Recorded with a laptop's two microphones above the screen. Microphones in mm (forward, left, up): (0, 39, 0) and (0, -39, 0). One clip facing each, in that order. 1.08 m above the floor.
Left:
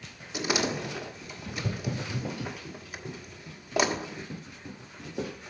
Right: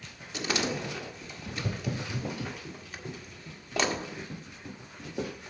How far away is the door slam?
About 1.6 m.